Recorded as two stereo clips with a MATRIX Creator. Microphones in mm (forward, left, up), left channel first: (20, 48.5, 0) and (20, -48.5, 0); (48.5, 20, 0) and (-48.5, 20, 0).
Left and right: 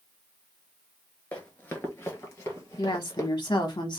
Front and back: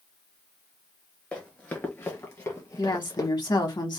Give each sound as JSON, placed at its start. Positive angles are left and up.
{"t": 1.3, "sound": "running footsteps", "azimuth_deg": 55, "distance_m": 1.3}
{"t": 2.8, "sound": "a woman speaking", "azimuth_deg": 45, "distance_m": 1.2}